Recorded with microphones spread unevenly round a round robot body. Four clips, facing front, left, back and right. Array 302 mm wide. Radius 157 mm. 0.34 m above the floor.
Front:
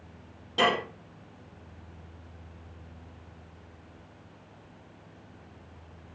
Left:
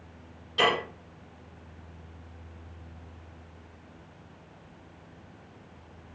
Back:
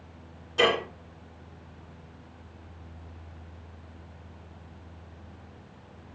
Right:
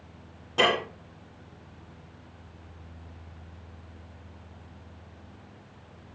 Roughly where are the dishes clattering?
Ahead right.